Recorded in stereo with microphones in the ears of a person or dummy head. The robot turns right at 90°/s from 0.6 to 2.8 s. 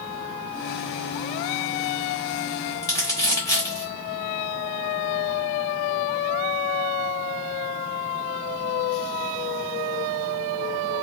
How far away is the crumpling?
About 1.2 m.